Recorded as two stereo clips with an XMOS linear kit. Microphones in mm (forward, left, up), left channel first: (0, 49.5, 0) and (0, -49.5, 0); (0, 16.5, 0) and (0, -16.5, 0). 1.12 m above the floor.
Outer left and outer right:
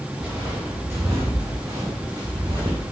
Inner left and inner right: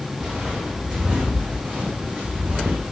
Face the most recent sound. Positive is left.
turn(degrees=-55)  # may be behind; listen again after turning